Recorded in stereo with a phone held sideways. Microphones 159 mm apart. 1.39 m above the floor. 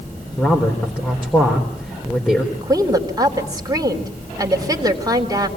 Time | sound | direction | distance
0.4 | a man speaking | 10° left (ahead or behind) | 4 m
2.5 | a woman speaking | 25° right (ahead or behind) | 3.5 m